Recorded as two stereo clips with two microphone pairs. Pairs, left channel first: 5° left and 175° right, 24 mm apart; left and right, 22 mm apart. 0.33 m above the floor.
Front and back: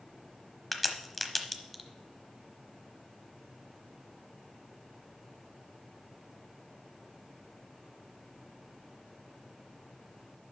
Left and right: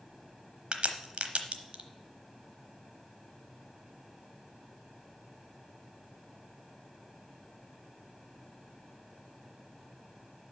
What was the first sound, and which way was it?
A crack, 80° right.